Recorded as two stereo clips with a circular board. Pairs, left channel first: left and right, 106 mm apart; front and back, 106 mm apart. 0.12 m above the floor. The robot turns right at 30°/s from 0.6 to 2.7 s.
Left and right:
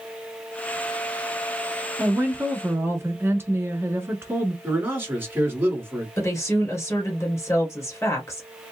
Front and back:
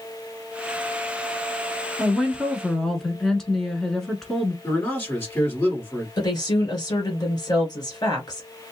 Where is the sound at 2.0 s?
100° right, 1.2 m; by 4.5 s 80° right, 1.2 m.